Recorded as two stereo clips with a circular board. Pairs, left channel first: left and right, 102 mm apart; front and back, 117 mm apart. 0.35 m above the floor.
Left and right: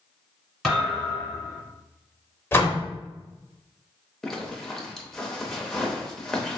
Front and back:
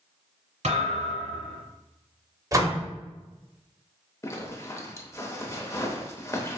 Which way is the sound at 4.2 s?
10° left.